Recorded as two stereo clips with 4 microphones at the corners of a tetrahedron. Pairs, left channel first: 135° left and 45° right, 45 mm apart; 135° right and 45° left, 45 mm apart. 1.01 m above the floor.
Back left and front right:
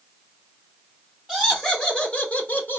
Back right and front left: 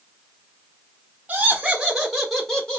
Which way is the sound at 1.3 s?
35° left.